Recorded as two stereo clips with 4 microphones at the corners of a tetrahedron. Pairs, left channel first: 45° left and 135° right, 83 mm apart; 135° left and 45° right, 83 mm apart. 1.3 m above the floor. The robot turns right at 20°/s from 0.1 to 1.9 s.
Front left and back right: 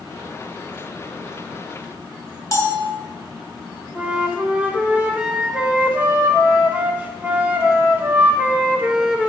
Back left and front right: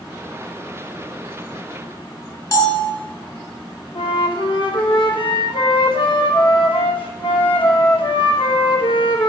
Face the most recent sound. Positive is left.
turn(degrees=155)